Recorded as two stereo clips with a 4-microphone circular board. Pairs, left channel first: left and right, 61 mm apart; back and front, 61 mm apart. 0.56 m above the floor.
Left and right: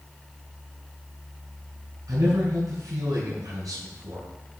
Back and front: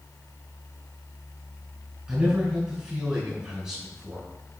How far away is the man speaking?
About 5 m.